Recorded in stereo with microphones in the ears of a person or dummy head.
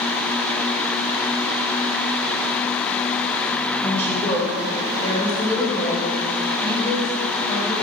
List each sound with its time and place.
3.8 s a woman speaking: 15° left (ahead or behind), 3.5 m; by 7.7 s 35° left (ahead or behind), 6 m